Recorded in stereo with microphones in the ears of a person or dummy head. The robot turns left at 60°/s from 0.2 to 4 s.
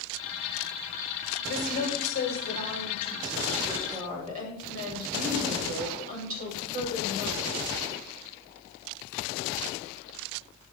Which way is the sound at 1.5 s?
105° left.